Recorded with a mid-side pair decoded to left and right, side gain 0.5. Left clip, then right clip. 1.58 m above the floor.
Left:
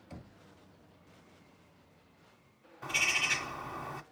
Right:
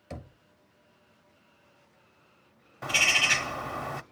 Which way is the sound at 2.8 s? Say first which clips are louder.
Right 7 dB; 55° right.